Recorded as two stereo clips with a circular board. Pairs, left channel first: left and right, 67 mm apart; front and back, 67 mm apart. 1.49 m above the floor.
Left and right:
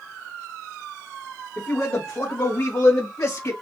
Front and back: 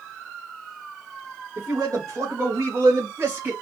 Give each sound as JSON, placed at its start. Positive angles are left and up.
{"t": 1.6, "sound": "a man speaking", "azimuth_deg": 155, "distance_m": 1.8}